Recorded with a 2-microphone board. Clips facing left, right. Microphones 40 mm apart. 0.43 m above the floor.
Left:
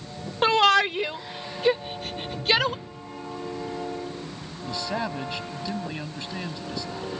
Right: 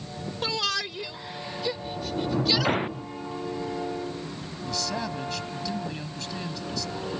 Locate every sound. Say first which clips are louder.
0.4 s a shout: left 11 dB; 45° left (ahead or behind); by 2.8 s 40° left (ahead or behind)
1.8 s a sliding door: right 3 dB; 60° right (ahead or behind)
4.7 s a man speaking: left 2 dB; 25° left (ahead or behind)